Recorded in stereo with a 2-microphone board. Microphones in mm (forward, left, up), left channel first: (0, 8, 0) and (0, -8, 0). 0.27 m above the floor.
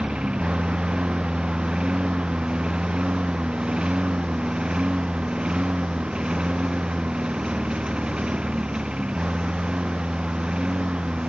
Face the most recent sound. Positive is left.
turn(degrees=-90)